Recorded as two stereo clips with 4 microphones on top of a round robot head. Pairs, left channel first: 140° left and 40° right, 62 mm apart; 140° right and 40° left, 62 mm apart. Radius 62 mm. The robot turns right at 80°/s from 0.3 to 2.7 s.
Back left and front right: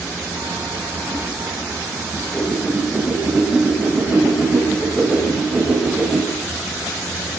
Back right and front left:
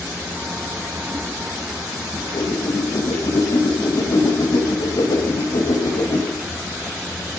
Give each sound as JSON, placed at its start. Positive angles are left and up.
{"t": 2.1, "sound": "a whoosh", "azimuth_deg": -165, "distance_m": 3.5}